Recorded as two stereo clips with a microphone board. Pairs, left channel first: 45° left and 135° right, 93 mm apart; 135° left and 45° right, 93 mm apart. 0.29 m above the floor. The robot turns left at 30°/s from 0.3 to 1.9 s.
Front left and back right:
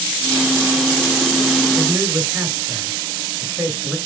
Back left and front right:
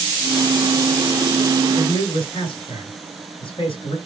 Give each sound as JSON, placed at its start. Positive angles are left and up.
{"t": 1.8, "sound": "a man speaking", "azimuth_deg": 155, "distance_m": 3.5}